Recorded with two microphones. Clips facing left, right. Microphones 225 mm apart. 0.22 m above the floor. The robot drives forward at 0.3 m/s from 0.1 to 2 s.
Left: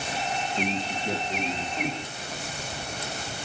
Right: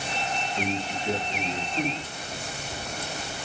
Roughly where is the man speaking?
Centre.